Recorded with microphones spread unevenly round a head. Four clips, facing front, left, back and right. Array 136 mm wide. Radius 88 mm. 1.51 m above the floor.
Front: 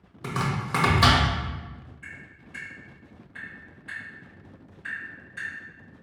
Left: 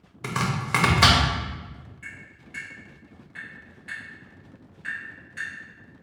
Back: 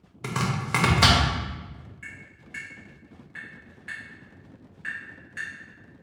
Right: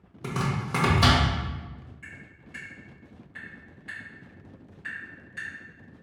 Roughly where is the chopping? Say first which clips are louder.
Left 2 dB, even; left.